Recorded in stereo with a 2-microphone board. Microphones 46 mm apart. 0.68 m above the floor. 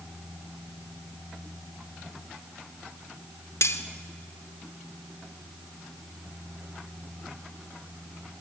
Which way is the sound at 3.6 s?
70° left (ahead or behind).